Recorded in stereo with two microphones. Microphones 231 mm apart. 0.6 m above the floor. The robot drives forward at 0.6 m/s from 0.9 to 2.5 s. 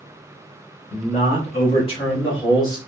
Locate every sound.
0.9 s a man speaking: 30° left (ahead or behind), 0.8 m; by 2.8 s 20° left (ahead or behind), 1.3 m